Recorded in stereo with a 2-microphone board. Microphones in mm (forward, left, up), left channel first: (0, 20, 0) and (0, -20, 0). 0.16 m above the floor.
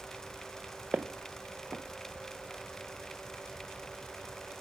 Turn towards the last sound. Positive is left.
turn(degrees=-40)  # may be behind; listen again after turning